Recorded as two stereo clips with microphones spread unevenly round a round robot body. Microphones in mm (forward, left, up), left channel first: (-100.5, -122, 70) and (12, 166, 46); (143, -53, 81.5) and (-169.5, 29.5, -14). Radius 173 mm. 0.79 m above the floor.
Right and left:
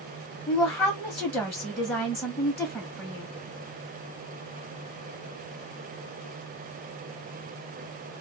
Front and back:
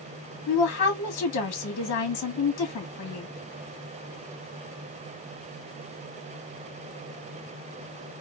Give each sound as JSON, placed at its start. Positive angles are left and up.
{"t": 0.5, "sound": "a woman speaking", "azimuth_deg": -25, "distance_m": 1.0}